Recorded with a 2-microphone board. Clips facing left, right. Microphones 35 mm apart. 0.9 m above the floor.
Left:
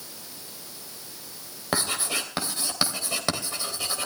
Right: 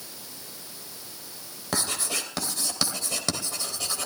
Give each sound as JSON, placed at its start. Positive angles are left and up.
{"t": 1.7, "sound": "writing", "side_deg": 20, "distance_m": 2.5}